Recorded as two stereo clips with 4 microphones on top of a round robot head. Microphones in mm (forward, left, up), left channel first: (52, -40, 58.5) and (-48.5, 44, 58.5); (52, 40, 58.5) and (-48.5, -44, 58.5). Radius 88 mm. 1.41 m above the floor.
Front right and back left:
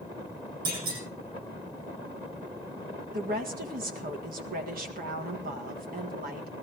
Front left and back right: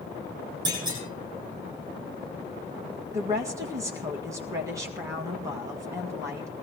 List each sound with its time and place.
0.7 s a clunk: 160° left, 9.5 m
3.1 s a woman speaking: 150° left, 1.7 m